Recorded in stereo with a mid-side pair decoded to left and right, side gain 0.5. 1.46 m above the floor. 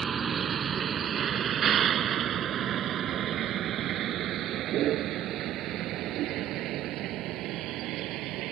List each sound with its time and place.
0.0 s a vehicle: 45° right; by 8.5 s 75° right